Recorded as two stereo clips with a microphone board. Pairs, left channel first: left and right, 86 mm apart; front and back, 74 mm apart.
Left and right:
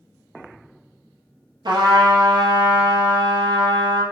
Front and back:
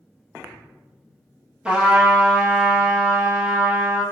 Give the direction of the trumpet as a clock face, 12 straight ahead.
4 o'clock.